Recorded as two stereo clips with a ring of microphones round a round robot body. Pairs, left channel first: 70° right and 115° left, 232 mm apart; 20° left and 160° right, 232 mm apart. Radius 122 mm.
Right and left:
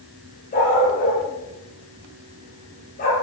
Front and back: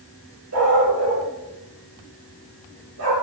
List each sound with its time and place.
0.5 s a dog barking: 125° right, 8 m